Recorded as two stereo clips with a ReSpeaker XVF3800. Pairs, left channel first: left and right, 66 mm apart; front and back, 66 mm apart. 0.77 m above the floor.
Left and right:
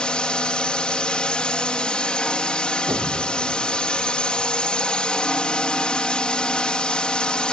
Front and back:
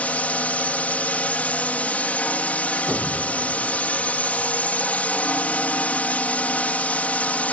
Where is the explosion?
115° right.